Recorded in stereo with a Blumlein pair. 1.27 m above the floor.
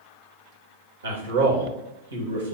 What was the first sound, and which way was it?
A man speaking, 65° right.